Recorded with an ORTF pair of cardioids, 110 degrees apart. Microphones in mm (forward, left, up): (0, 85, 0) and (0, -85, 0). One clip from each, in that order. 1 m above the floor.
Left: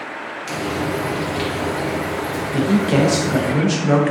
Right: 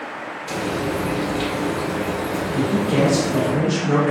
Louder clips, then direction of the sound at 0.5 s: Left 1 dB; 70° left.